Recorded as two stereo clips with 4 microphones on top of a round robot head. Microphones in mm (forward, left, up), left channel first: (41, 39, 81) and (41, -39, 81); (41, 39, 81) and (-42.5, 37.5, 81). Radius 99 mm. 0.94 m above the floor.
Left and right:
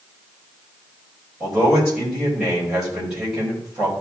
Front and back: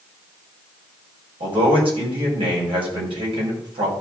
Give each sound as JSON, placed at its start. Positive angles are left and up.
{"t": 1.4, "sound": "a man speaking", "azimuth_deg": -175, "distance_m": 4.5}